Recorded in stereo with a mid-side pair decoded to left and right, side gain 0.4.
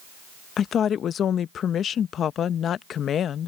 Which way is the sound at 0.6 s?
65° left.